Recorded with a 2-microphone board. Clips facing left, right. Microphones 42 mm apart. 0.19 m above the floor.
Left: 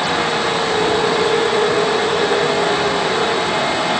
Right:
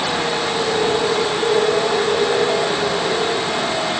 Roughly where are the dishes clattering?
No dishes clattering in this recording.